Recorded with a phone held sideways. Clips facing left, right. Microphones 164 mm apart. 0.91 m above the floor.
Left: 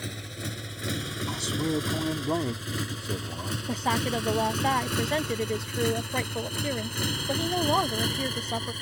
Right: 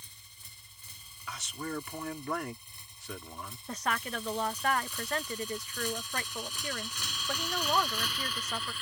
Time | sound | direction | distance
0.0 | a motorcycle | 75° left (ahead or behind) | ?
1.3 | a man speaking | 35° left (ahead or behind) | ?
3.7 | a woman speaking | 30° left (ahead or behind) | ?